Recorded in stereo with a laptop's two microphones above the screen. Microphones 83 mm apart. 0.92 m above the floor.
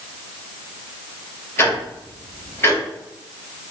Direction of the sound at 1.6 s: 30° left (ahead or behind).